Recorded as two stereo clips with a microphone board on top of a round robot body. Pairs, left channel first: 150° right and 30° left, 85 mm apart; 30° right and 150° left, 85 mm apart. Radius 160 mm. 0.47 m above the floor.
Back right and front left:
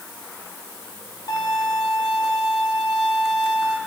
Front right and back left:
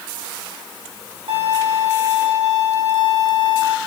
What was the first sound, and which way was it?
A violin, 160° left.